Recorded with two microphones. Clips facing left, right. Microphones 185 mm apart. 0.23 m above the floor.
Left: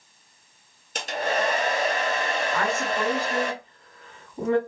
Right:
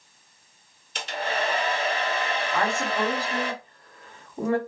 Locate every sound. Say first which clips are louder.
0.9 s a hair dryer: left 3 dB; 45° left (ahead or behind), 0.7 m
2.5 s a woman speaking: right 2 dB; 30° right (ahead or behind), 1.8 m